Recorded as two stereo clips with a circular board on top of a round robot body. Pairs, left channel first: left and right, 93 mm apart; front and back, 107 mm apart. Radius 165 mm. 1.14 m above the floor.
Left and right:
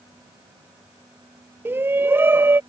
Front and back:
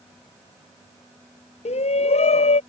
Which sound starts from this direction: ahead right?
A shout, at 1.6 s.